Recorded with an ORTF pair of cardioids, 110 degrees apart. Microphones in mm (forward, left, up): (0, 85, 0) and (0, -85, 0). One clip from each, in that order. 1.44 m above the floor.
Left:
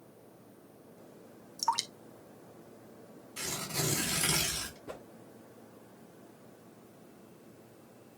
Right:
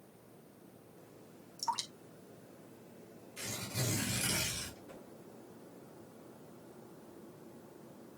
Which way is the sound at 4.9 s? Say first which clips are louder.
Left 7 dB; 55° left.